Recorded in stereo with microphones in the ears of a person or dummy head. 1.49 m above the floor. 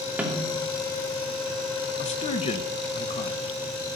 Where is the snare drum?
10° right (ahead or behind), 3 m.